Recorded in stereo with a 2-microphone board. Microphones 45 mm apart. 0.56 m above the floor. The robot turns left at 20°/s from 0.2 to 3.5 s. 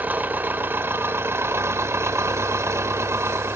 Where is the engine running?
40° right, 0.8 m; by 3.6 s 105° right, 0.8 m.